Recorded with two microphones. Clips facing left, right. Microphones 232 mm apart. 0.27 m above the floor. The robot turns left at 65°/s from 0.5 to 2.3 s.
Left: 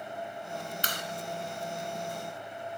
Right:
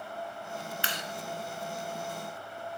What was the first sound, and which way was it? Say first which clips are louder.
A clap: even; 45° left (ahead or behind).